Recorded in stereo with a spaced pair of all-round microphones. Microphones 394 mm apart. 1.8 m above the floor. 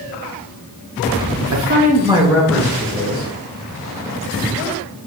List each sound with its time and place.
1.5 s a man speaking: 40° right (ahead or behind), 0.5 m; by 3.3 s 15° left (ahead or behind), 1.4 m